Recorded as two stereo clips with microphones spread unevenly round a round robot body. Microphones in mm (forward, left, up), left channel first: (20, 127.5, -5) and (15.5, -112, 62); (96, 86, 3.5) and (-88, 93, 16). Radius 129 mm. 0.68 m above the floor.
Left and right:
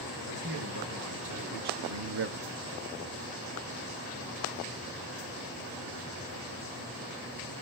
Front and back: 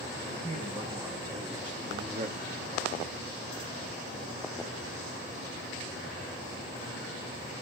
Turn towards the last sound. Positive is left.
turn(degrees=180)